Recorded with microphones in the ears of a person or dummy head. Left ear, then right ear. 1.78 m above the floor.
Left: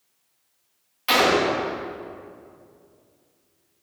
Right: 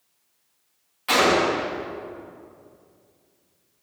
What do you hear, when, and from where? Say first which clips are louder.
1.1 s a gunshot: even; 15° left (ahead or behind), 2 m